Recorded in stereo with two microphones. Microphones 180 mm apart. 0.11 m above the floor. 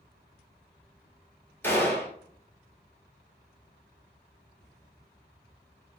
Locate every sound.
1.6 s a gunshot: 10° left (ahead or behind), 1.0 m